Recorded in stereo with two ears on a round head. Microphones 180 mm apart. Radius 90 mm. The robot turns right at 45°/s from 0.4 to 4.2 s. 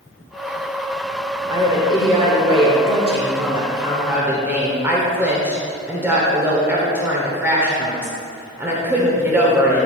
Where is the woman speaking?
15° right (ahead or behind), 1.2 m; by 9.9 s 10° right (ahead or behind), 1.2 m.